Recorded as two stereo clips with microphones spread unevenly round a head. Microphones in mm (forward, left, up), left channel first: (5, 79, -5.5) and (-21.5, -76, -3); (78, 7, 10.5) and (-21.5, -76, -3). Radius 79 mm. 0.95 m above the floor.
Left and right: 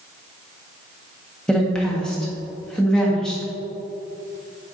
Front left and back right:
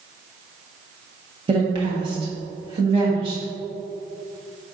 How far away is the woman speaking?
About 1.5 m.